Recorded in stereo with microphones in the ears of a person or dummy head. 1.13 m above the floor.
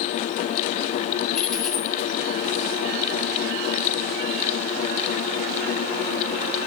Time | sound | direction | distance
1.3 | a dropped coin | 10° left (ahead or behind) | 3 m